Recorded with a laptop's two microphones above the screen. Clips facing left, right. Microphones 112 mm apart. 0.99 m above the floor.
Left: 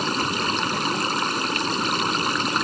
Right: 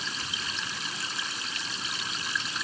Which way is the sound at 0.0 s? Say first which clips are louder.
Left 14 dB; 65° left (ahead or behind).